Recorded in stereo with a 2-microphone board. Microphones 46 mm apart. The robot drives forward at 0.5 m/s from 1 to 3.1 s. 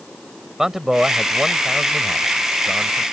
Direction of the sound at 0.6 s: 10° right (ahead or behind).